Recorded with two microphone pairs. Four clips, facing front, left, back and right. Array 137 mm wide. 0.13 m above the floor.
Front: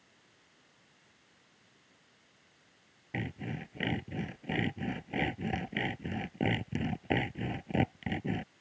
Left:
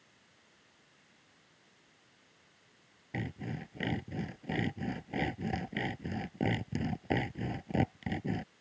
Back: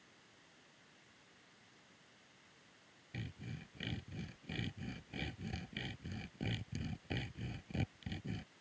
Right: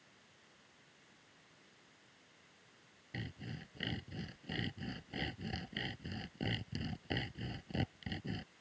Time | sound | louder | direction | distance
3.1 | sawing | left 8 dB, front 11 dB | 35° left | ?